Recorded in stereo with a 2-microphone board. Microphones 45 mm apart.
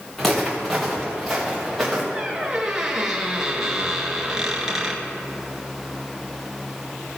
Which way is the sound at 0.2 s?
5° left (ahead or behind).